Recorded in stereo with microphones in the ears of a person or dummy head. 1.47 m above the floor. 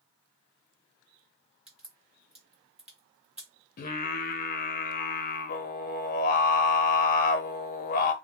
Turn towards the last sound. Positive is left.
turn(degrees=50)  # may be behind; listen again after turning